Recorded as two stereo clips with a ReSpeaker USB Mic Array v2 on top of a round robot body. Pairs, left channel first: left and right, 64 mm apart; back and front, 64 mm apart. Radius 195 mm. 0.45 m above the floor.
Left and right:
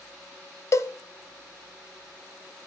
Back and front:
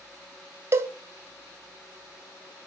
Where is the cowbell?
50° left, 0.6 m.